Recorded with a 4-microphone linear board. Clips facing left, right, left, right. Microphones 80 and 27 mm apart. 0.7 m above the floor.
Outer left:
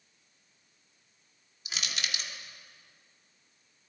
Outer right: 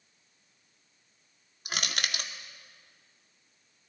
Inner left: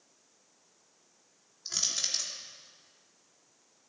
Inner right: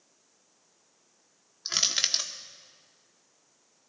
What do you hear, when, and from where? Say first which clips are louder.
1.6 s crushing: outer right 4 dB, inner right 6 dB; 55° right (ahead or behind), 0.8 m